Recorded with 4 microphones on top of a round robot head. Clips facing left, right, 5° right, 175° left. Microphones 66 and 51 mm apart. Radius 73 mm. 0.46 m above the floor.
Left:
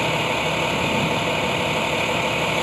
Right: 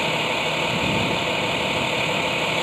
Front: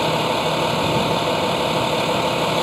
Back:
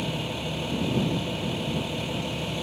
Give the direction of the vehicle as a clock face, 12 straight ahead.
12 o'clock.